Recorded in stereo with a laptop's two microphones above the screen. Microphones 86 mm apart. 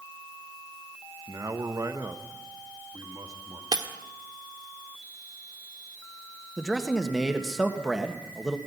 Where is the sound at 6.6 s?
5° right (ahead or behind), 1.5 m.